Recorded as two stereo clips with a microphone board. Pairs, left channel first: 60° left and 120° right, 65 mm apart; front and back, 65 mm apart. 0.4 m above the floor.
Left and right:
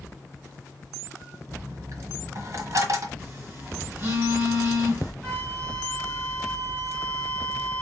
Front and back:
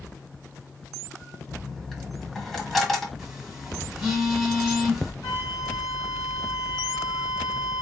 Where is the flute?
40° right, 3 m.